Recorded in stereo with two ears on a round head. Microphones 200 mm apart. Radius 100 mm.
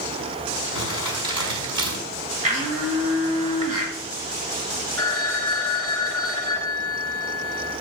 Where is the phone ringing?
10° left (ahead or behind), 2.5 m.